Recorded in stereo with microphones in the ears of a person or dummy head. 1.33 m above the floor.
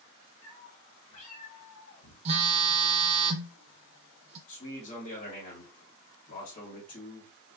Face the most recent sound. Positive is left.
turn(degrees=40)  # may be behind; listen again after turning